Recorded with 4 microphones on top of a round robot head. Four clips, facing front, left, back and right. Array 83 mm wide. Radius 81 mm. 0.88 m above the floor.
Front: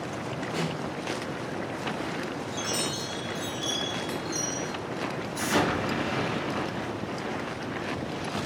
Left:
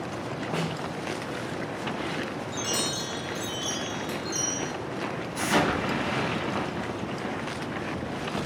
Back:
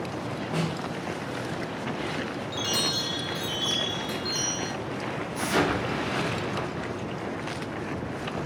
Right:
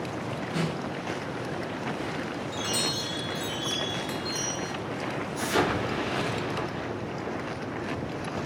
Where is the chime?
155° left, 1.1 m.